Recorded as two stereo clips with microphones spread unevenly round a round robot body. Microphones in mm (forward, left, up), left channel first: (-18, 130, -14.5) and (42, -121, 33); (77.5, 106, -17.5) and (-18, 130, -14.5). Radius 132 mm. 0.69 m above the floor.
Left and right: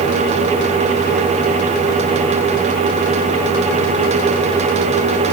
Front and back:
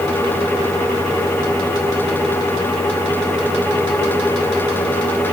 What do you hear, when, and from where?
Only background noise.